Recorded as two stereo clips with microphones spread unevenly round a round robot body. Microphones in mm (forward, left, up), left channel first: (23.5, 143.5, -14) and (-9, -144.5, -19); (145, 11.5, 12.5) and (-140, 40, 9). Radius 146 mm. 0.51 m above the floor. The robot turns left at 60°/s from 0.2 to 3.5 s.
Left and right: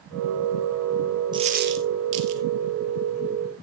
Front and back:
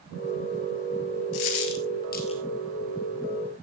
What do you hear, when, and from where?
1.3 s a dropped coin: 20° right, 1.8 m; by 2.4 s 85° right, 1.8 m